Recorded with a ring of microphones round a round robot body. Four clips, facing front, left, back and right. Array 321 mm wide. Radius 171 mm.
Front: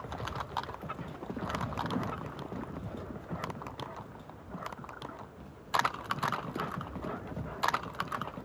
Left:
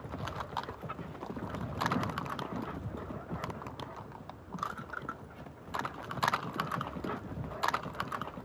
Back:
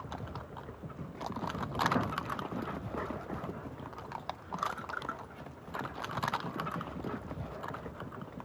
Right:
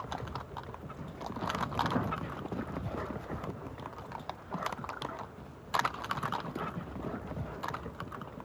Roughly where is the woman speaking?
No woman speaking in this recording.